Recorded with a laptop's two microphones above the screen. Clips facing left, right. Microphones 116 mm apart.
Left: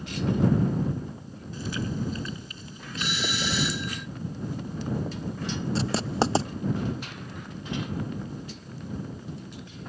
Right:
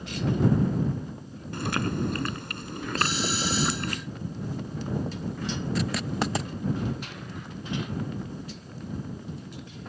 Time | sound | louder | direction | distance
1.5 | chewing | right 3 dB | 70° right (ahead or behind) | ?
3.0 | a doorbell | right 2 dB | 35° right (ahead or behind) | ?
5.8 | writing | left 4 dB | 30° left (ahead or behind) | ?